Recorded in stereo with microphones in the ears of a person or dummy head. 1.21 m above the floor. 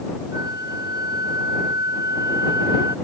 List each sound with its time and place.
0.3 s a flute: 20° right (ahead or behind)